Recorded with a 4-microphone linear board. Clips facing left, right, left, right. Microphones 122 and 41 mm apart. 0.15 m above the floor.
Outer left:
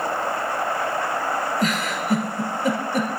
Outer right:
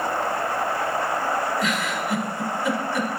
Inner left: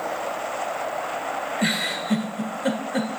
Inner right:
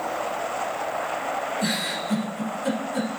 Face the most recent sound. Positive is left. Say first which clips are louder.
# outer left 1 dB, inner left 2 dB
turn(degrees=40)  # may be behind; listen again after turning